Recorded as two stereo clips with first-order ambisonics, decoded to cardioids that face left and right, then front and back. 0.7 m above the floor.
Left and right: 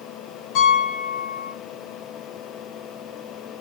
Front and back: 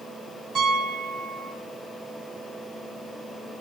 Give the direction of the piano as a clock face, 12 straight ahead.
8 o'clock.